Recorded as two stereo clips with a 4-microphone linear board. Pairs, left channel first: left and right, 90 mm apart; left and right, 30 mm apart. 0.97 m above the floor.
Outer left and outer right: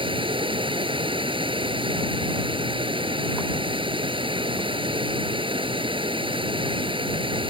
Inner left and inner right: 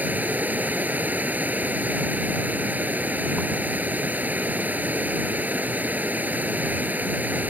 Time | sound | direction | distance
0.0 | running water | 75° right (ahead or behind) | ?